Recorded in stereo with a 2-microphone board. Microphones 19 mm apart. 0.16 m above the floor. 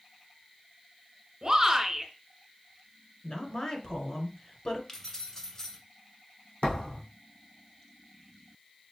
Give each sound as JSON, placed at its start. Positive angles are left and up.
{"t": 1.4, "sound": "a shout", "side_deg": -30, "distance_m": 1.8}
{"t": 3.2, "sound": "a woman speaking", "side_deg": 35, "distance_m": 2.0}
{"t": 4.9, "sound": "keys jangling", "side_deg": 30, "distance_m": 1.3}
{"t": 6.6, "sound": "a thud", "side_deg": 70, "distance_m": 2.0}